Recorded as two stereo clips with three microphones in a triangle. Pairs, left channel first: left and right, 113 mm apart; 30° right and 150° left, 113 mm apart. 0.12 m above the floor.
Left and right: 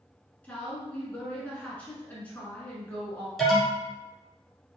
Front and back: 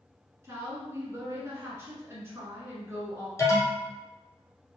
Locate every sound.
0.4 s a woman speaking: 145° left, 1.3 m
3.4 s an alarm: straight ahead, 1.2 m